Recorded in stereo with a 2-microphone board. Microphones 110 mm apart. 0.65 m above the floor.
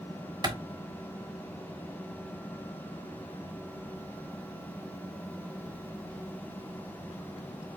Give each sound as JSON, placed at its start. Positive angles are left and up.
{"t": 0.4, "sound": "a clap", "side_deg": -35, "distance_m": 1.2}